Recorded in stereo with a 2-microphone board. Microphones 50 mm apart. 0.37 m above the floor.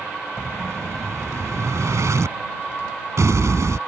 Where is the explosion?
75° right (ahead or behind).